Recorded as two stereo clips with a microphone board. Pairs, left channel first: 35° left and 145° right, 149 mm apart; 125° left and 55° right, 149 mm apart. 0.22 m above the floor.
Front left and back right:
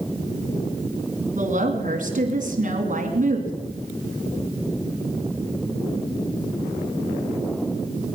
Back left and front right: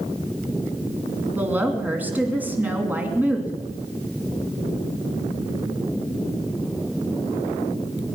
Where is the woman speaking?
135° right, 2.5 m.